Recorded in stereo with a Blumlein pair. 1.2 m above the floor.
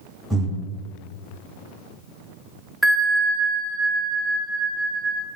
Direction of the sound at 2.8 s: Straight ahead.